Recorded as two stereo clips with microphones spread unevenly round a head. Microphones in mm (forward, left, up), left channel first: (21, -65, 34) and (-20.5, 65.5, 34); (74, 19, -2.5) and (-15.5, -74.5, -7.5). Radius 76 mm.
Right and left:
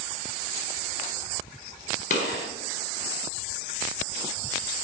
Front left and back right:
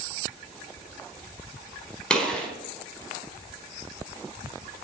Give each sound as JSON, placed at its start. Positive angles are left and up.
{"t": 2.1, "sound": "a gunshot", "azimuth_deg": -35, "distance_m": 4.0}